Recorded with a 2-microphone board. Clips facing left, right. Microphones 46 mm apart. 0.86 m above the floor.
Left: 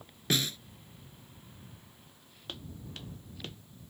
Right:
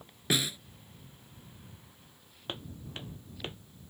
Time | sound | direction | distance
0.3 | a snare drum | 10° right (ahead or behind) | ?
2.5 | footsteps | 30° right (ahead or behind) | ?